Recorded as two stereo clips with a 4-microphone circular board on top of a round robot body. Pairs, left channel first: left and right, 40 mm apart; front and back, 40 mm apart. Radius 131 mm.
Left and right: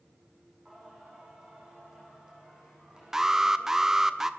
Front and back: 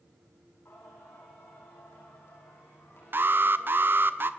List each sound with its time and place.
0.7 s singing: 20° right, 9 m
3.1 s an alarm: 170° right, 1.2 m